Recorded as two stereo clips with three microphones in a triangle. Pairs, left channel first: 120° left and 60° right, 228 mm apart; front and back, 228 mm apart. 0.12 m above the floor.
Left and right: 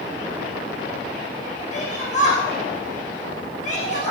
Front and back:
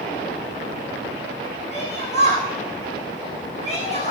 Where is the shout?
60° left, 9.5 m.